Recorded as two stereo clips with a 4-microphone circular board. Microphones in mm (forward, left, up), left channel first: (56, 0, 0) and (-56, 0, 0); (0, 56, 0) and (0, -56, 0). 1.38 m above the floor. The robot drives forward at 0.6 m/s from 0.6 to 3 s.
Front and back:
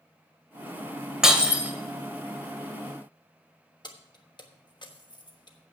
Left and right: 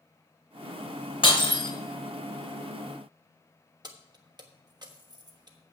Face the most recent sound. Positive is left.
turn(degrees=-45)